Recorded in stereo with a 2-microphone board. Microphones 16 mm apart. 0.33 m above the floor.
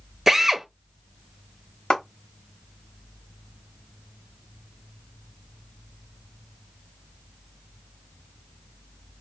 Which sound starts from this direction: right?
A drill, at 0.3 s.